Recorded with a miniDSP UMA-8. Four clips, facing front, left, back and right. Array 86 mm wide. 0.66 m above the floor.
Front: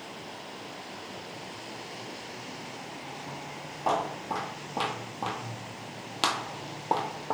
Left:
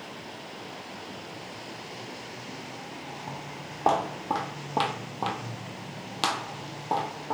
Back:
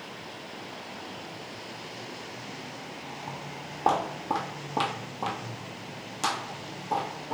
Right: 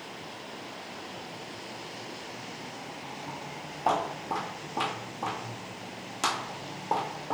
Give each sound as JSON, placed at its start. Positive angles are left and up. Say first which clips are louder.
{"t": 3.3, "sound": "footsteps", "louder": "left 1 dB, back 1 dB", "azimuth_deg": 135, "distance_m": 1.7}